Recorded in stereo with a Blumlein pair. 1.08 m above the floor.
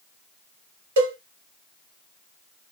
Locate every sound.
1.0 s a cowbell: 60° right, 1.0 m